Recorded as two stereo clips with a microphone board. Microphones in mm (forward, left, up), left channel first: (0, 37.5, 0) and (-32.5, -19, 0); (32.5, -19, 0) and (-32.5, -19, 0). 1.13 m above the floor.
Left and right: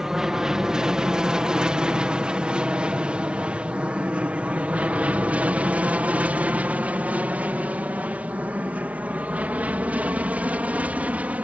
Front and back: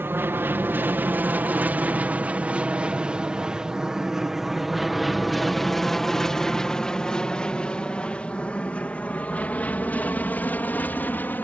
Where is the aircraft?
165° left; by 11.4 s 55° right.